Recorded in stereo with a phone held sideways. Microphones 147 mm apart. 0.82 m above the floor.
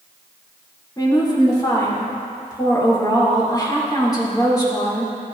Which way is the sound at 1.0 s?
25° left (ahead or behind).